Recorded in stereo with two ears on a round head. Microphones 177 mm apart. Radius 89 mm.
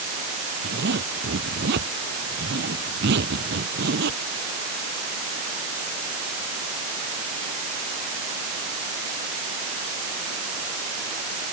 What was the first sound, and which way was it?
A zipper, 55° right (ahead or behind).